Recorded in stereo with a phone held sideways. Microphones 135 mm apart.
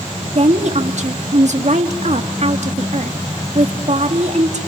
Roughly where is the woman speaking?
Right.